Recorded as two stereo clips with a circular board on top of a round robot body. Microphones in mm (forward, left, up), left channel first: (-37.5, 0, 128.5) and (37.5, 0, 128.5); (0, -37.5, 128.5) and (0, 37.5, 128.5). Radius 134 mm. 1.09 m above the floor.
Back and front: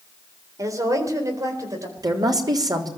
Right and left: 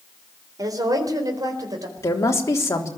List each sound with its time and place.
0.6 s a woman speaking: 50° left, 4 m
2.0 s a woman speaking: 35° right, 3.5 m